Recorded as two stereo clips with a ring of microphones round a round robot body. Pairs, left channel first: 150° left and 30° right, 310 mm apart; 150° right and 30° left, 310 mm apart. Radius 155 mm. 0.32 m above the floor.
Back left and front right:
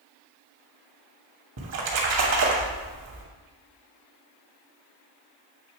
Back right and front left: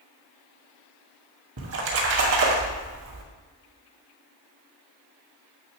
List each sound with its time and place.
1.6 s a splash: 5° right, 2 m